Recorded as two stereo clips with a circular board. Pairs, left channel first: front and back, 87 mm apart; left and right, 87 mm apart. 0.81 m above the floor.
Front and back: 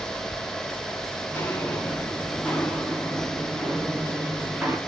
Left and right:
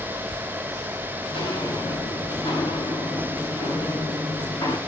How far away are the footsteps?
About 6.5 m.